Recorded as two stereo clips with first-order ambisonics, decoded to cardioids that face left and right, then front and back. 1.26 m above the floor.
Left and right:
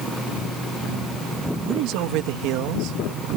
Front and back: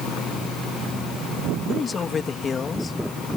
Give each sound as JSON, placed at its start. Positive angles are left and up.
{"t": 1.6, "sound": "a man speaking", "azimuth_deg": -70}